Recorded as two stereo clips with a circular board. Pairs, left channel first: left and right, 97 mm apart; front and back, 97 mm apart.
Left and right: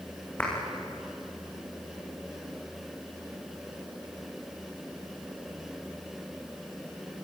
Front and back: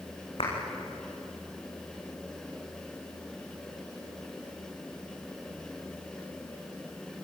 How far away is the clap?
About 8 m.